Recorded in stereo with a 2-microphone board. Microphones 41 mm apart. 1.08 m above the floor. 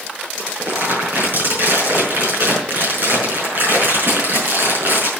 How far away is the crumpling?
About 5.5 m.